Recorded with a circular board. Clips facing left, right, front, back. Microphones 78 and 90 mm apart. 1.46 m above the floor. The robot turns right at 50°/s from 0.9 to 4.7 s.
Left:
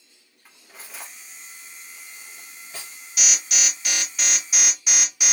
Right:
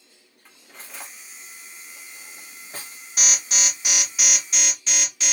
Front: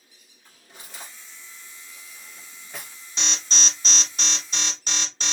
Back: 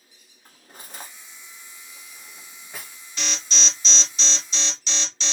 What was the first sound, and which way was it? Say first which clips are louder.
Cutlery clinking: even, back 2 dB; 175° left.